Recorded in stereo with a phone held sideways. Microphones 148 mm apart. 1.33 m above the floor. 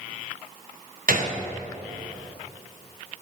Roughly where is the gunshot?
Right.